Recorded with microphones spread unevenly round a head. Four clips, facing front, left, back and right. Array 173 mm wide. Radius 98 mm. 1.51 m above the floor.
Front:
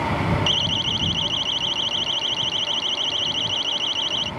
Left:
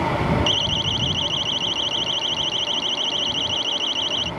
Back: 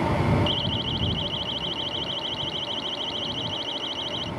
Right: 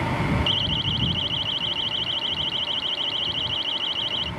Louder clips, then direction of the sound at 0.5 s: Left 3 dB, front 1 dB; 35° left.